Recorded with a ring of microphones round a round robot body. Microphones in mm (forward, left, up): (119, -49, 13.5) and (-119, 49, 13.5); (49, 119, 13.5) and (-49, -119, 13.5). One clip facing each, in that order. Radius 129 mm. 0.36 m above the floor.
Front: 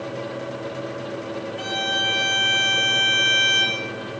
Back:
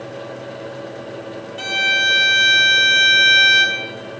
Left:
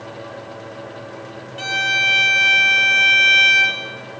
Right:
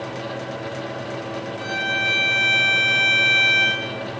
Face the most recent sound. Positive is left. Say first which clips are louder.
# even, right 3 dB
turn(degrees=105)